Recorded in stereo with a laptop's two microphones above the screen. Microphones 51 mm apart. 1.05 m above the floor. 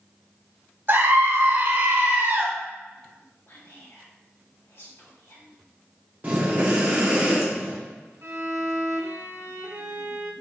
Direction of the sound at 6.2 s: 30° right (ahead or behind).